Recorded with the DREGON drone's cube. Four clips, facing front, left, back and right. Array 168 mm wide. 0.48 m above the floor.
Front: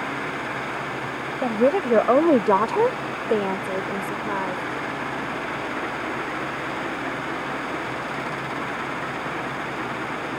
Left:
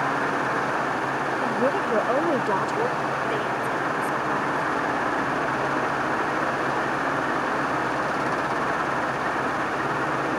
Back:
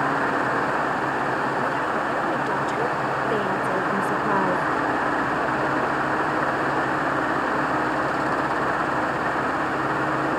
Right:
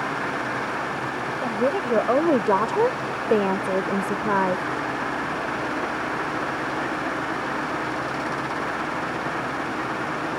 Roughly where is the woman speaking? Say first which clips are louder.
Right 2 dB, front 4 dB; ahead.